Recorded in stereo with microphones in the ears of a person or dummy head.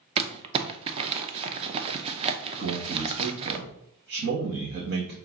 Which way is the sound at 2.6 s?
50° right (ahead or behind).